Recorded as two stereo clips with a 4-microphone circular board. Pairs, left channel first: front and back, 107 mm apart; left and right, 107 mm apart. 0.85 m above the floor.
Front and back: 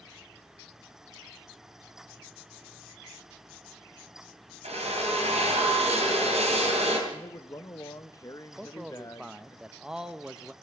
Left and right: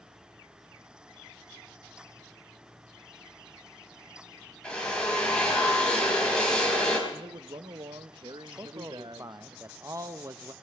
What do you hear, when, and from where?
4.6 s a drill: 170° left, 3 m
7.1 s a man speaking: 55° right, 0.6 m
8.6 s a man speaking: 105° right, 0.6 m